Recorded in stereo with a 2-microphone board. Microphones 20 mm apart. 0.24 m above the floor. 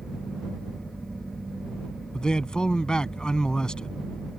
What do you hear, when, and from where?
2.1 s a man speaking: 40° left (ahead or behind)